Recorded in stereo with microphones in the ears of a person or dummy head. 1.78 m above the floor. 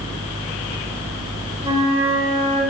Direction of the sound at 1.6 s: 30° right (ahead or behind).